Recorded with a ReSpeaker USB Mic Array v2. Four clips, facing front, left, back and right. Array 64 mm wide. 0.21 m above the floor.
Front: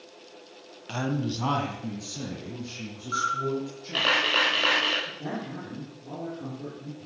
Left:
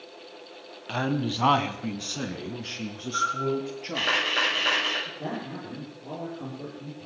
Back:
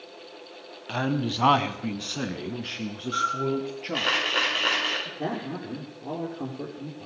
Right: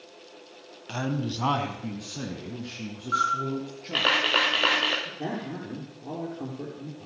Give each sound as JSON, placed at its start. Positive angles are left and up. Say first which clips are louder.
{"t": 0.9, "sound": "a man speaking", "louder": "left 3 dB, back 2 dB", "azimuth_deg": 125, "distance_m": 1.4}
{"t": 3.1, "sound": "a camera shutter", "louder": "right 1 dB, back 1 dB", "azimuth_deg": -75, "distance_m": 7.0}
{"t": 5.0, "sound": "a man speaking", "louder": "right 1 dB, back 3 dB", "azimuth_deg": -155, "distance_m": 5.5}